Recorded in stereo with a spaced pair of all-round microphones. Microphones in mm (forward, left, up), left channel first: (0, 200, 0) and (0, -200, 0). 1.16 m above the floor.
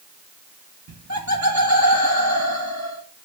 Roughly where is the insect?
No insect in this recording.